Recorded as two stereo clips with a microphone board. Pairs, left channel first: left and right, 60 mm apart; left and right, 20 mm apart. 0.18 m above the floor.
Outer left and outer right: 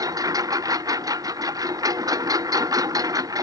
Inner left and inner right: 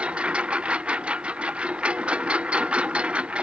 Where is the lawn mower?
85° right; by 3.4 s 90° right.